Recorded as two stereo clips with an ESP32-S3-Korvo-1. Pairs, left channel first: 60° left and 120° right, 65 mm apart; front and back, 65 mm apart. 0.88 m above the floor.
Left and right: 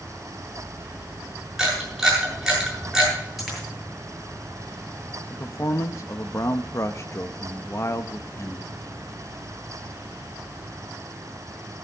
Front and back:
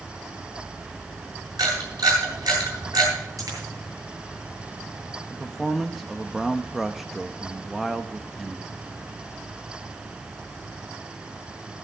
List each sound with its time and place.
1.6 s a camera shutter: 155° left, 8 m
3.4 s a dropped coin: 150° left, 8 m
5.3 s a man speaking: 95° left, 0.7 m